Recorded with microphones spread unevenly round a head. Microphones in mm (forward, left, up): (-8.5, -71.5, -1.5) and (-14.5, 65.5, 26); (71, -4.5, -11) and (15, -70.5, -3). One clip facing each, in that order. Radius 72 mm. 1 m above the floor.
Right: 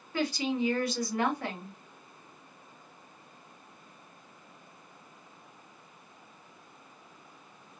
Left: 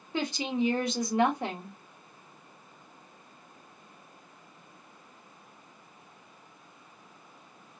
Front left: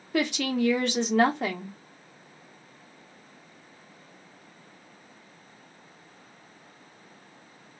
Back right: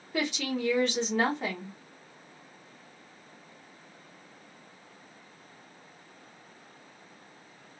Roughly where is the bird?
I don't hear a bird.